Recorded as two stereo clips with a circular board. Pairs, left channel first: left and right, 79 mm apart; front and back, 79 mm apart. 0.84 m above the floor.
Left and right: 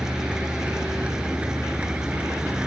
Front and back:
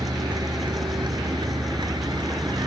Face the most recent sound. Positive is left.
turn(degrees=-165)